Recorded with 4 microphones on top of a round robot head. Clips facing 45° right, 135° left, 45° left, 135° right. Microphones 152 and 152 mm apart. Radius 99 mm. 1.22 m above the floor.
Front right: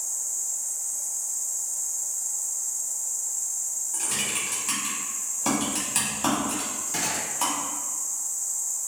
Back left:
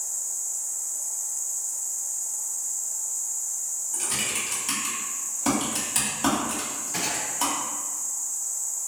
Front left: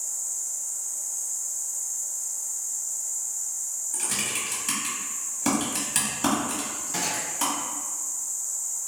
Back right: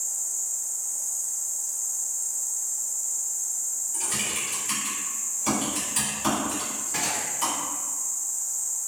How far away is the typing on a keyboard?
About 1.3 m.